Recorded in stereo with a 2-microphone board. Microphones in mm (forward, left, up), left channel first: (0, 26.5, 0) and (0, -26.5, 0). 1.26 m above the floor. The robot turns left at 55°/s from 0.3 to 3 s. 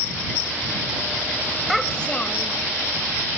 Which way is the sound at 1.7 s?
Straight behind.